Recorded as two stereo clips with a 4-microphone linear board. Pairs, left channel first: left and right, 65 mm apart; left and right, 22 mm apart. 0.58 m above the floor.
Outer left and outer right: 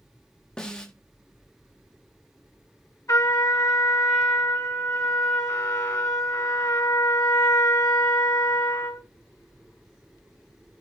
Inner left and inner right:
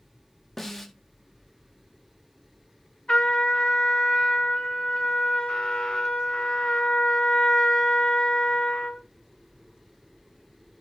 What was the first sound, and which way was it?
A snare drum, 10° left (ahead or behind).